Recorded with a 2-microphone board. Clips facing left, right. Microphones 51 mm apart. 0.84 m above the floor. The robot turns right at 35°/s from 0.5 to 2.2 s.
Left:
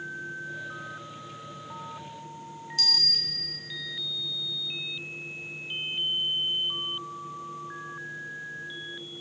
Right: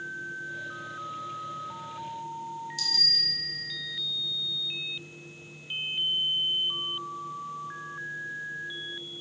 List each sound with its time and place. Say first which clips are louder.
2.8 s a bell: left 4 dB; 55° left (ahead or behind), 1.1 m